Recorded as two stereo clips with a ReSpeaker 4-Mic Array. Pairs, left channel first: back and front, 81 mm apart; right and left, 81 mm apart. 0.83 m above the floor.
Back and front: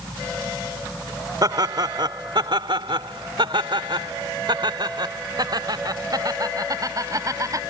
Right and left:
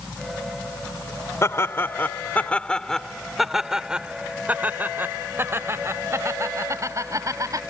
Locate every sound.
1.4 s laughter: 35° right; by 7.6 s 45° left